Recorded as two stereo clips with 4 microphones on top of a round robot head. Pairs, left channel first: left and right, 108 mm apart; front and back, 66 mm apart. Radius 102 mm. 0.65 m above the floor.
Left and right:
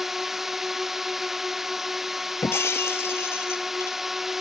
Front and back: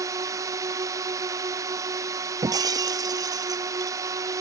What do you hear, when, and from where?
0.0 s a drone: 175° right
2.4 s breaking glass: 160° left